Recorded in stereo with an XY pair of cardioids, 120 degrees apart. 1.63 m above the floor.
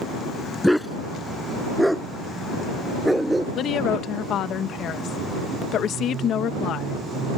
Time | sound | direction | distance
0.6 | a dog barking | 5° left | ?
3.5 | a woman speaking | 60° left | ?